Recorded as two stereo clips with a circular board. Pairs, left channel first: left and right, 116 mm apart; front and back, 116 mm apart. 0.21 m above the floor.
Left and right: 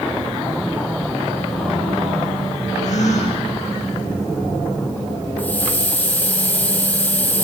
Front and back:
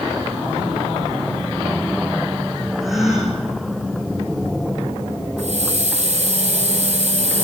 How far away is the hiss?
About 5 m.